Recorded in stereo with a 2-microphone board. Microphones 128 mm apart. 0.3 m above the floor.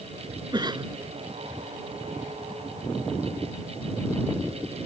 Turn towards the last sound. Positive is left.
turn(degrees=-30)  # may be behind; listen again after turning